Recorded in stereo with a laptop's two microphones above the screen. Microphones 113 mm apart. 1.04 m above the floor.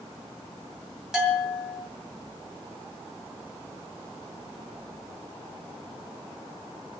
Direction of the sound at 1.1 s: 5° right (ahead or behind).